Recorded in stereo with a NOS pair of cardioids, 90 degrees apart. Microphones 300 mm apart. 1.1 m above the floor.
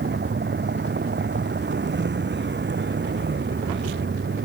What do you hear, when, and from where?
0.0 s a vehicle: 30° right; by 4.5 s 35° right